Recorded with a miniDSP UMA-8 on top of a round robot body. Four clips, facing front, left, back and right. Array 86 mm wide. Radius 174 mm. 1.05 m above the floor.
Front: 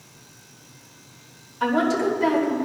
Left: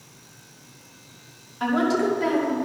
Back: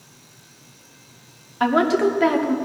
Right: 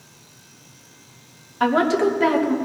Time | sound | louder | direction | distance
1.6 | a woman speaking | right 4 dB, back 3 dB | 145° right | 2.5 m